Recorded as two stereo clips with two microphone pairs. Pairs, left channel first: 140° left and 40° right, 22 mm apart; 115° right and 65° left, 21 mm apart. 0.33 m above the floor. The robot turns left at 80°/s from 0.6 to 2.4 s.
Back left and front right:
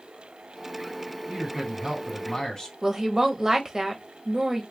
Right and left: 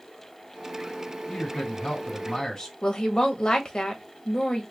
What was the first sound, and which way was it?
A man speaking, 80° right.